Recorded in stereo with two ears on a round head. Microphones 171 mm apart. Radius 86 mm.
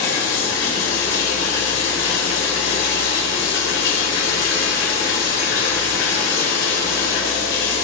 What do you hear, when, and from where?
0.0 s running water: 75° left (ahead or behind), 3.5 m